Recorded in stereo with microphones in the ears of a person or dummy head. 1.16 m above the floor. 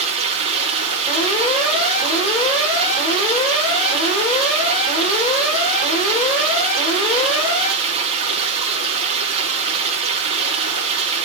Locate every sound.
0.0 s running water: 30° right (ahead or behind), 4 m
1.1 s an alarm: 30° left (ahead or behind), 5.5 m